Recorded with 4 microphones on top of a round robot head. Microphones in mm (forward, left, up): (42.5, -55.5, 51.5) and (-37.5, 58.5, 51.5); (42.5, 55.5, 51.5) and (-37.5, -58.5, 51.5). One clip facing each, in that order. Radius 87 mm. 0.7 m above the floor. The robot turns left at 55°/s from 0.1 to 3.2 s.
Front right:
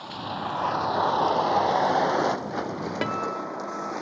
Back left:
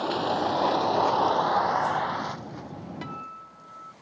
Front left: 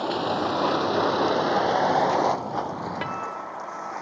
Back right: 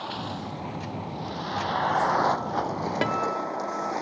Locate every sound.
0.0 s a vehicle: 95° left; by 4.0 s 65° right
3.0 s a guitar: 75° right; by 3.9 s 85° right